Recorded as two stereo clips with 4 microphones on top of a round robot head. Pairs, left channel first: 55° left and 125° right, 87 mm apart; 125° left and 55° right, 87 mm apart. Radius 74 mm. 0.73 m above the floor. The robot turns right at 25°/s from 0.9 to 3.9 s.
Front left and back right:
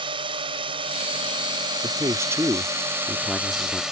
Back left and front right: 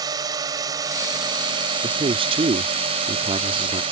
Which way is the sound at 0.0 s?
100° right.